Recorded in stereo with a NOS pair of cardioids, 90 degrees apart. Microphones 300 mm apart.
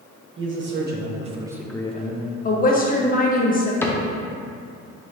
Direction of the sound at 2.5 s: 25° left.